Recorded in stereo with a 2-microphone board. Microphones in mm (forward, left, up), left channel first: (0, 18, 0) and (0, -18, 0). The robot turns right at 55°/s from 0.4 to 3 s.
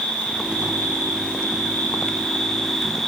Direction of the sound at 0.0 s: 40° left.